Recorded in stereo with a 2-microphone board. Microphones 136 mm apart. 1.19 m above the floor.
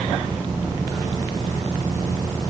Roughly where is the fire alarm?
No fire alarm in this recording.